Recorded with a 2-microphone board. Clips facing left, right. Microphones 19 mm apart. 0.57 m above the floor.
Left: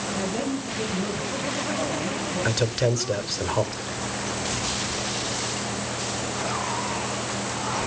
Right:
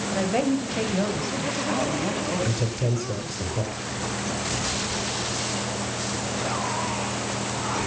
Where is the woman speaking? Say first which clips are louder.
Right 6 dB; 75° right (ahead or behind), 4.5 m; by 3.5 s 60° right (ahead or behind), 6 m.